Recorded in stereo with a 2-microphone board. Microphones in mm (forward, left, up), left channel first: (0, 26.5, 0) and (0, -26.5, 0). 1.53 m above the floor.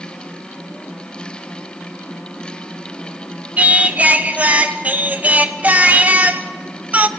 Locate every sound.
3.6 s singing: 30° right (ahead or behind), 0.9 m